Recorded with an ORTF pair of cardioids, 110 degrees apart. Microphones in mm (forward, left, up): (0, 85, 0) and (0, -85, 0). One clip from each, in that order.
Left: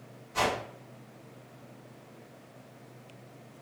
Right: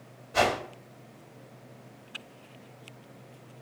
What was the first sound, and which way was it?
A whoosh, 70° right.